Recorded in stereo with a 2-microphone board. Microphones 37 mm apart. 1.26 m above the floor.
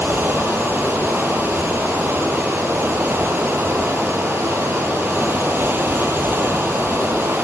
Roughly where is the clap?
I don't hear a clap.